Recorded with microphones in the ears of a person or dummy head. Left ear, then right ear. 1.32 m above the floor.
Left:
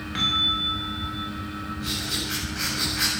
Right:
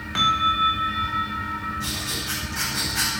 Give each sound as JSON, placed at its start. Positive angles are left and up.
{"t": 0.1, "sound": "a bell", "side_deg": -30, "distance_m": 3.5}
{"t": 1.8, "sound": "writing", "side_deg": -40, "distance_m": 9.5}